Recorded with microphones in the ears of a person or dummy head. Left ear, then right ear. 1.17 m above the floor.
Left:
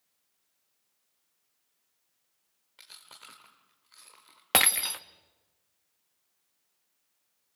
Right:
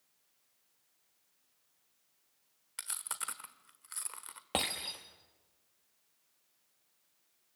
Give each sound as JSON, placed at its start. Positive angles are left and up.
{"t": 2.8, "sound": "chewing", "side_deg": -50, "distance_m": 1.3}
{"t": 4.5, "sound": "breaking glass", "side_deg": 50, "distance_m": 1.0}